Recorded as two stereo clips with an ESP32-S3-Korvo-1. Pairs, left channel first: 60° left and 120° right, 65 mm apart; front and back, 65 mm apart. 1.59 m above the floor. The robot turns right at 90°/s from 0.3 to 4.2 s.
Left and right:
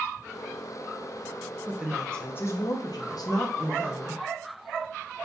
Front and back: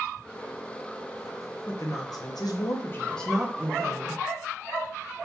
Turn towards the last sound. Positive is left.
turn(degrees=170)